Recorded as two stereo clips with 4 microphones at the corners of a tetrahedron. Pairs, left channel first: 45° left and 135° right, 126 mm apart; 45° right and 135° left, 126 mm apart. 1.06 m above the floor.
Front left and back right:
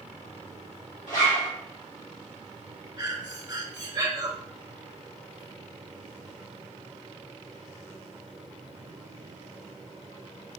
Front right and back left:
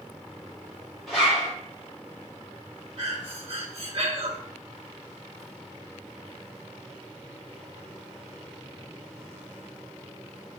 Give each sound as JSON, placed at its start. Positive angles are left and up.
{"t": 1.1, "sound": "a zipper", "azimuth_deg": 40, "distance_m": 1.9}
{"t": 3.0, "sound": "breathing", "azimuth_deg": 165, "distance_m": 0.7}